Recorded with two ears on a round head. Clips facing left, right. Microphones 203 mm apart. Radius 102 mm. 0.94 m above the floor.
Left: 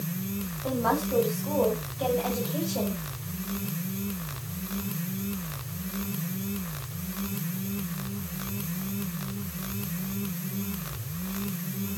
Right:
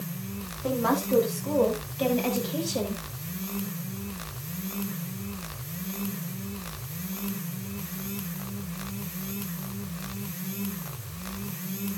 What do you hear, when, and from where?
0.6 s a woman speaking: 40° right (ahead or behind), 9 m